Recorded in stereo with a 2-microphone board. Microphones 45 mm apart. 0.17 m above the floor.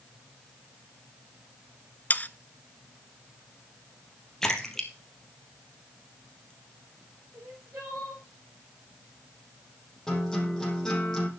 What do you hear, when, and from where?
2.1 s sawing: 40° left (ahead or behind), 0.6 m
4.4 s a splash: 10° left (ahead or behind), 2.5 m
7.3 s crying: 80° right, 7 m
10.1 s a guitar: 10° left (ahead or behind), 5 m